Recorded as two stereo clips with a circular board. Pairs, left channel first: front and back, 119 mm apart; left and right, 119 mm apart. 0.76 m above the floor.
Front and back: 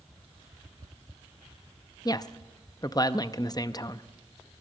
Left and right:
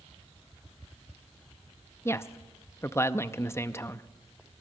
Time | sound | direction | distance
2.0 | a woman speaking | 35° left | 0.5 m